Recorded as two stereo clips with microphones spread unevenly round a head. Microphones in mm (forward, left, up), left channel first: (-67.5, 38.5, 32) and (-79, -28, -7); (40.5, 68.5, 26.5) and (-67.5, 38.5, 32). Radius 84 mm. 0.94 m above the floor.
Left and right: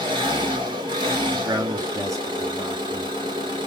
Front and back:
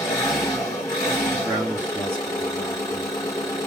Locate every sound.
0.0 s an engine running: 50° right, 1.7 m
1.3 s a man speaking: 90° right, 1.6 m